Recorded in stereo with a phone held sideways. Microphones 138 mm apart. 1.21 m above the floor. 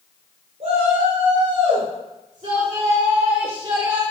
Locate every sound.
0.6 s a shout: 60° right (ahead or behind), 4.5 m; by 4.0 s 30° right (ahead or behind), 2 m